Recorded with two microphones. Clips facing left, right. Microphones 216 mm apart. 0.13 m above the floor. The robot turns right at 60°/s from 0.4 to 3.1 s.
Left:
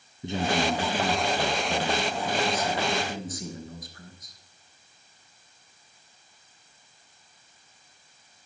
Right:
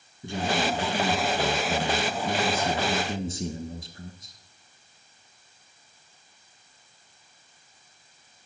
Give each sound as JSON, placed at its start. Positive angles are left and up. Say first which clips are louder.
{"t": 0.2, "sound": "a man speaking", "louder": "left 1 dB", "side_deg": 20, "distance_m": 1.1}